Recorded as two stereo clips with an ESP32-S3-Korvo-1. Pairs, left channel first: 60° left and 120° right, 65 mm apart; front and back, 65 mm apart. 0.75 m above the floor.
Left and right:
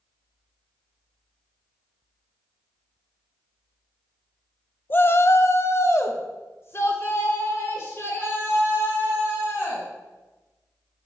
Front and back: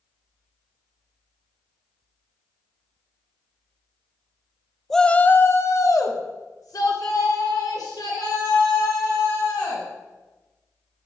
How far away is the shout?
About 0.6 m.